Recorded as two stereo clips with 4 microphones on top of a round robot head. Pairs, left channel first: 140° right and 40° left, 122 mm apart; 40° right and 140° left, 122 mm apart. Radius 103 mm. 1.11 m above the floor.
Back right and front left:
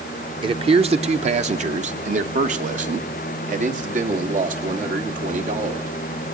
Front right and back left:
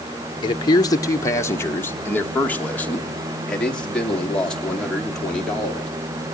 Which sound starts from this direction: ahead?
A man speaking, at 0.4 s.